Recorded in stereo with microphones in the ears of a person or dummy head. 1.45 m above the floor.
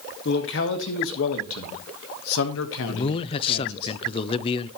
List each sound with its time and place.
0.2 s a man speaking: 65° left (ahead or behind), 2 m; by 3.9 s 55° left (ahead or behind), 1.5 m
2.9 s a man speaking: 30° left (ahead or behind), 0.6 m